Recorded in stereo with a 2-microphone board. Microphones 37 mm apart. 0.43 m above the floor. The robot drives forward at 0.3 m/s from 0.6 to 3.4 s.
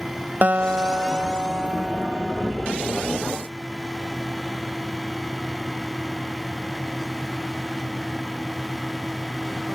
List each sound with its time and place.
0.4 s a guitar: 55° right (ahead or behind); by 2.5 s 35° right (ahead or behind)